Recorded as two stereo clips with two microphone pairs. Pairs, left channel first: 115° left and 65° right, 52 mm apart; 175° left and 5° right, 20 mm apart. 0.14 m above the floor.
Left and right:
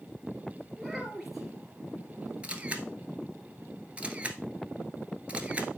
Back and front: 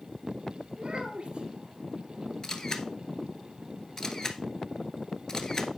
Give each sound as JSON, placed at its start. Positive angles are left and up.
{"t": 0.8, "sound": "a child speaking", "azimuth_deg": 20, "distance_m": 1.1}
{"t": 2.4, "sound": "a camera shutter", "azimuth_deg": -130, "distance_m": 1.1}